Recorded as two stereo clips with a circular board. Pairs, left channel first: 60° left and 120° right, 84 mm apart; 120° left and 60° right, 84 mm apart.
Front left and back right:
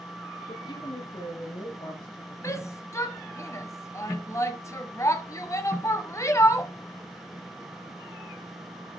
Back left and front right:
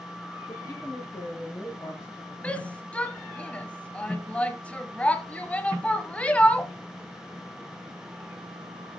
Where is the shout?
60° left, 1.1 m.